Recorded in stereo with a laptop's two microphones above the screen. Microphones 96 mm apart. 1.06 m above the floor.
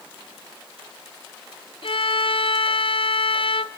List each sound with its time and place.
1.8 s a violin: 60° left (ahead or behind), 0.9 m